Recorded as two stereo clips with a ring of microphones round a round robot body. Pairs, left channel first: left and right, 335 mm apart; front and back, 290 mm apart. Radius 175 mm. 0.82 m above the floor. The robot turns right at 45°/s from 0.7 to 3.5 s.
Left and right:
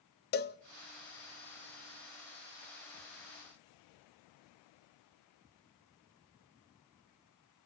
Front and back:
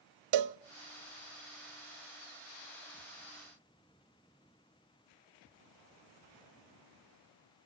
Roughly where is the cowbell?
Behind left.